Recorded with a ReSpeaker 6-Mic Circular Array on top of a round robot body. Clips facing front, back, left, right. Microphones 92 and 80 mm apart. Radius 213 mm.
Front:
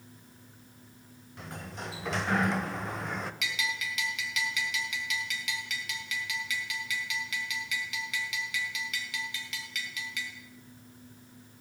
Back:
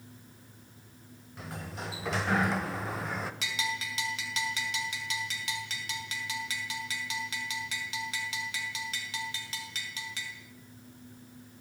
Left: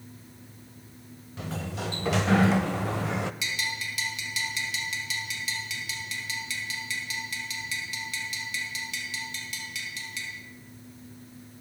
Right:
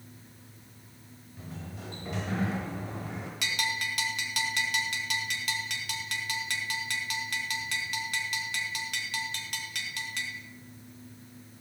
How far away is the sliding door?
About 1.1 m.